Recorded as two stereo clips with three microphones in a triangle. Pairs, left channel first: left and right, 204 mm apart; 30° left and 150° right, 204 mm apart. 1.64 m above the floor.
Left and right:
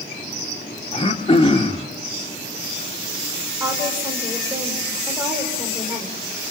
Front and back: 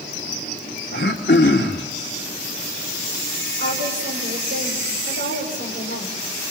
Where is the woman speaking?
170° right, 6.5 m.